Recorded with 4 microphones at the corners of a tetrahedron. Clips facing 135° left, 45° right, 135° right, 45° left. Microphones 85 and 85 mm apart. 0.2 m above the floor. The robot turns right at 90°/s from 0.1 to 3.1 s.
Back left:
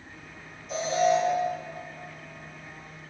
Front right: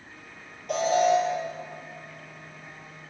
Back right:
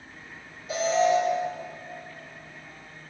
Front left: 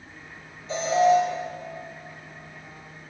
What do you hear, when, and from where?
0.7 s an alarm: 60° right, 4.5 m; by 1.2 s 15° right, 4.5 m